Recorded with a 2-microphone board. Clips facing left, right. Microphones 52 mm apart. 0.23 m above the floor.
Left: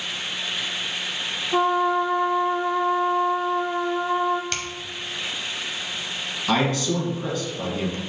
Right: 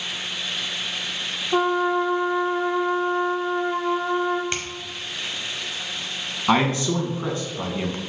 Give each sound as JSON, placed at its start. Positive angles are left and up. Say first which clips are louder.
{"t": 1.5, "sound": "a trumpet", "louder": "even", "side_deg": -25, "distance_m": 1.0}
{"t": 4.5, "sound": "a finger snap", "louder": "right 1 dB", "side_deg": -20, "distance_m": 1.1}
{"t": 6.5, "sound": "a man speaking", "louder": "right 2 dB", "side_deg": -30, "distance_m": 1.8}